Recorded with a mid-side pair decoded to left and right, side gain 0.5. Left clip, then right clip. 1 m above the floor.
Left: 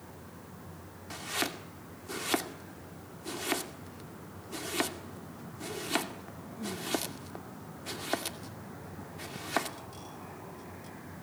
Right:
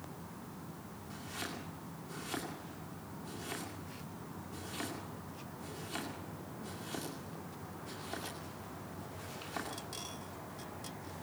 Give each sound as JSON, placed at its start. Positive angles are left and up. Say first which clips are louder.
{"t": 1.1, "sound": "chopping", "louder": "left 9 dB", "azimuth_deg": 65, "distance_m": 2.0}